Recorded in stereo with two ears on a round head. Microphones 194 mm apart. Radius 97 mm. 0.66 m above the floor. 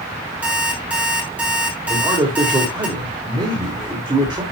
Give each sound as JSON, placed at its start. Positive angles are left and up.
{"t": 0.4, "sound": "an alarm clock", "side_deg": -5, "distance_m": 4.0}
{"t": 1.9, "sound": "a man speaking", "side_deg": -20, "distance_m": 2.0}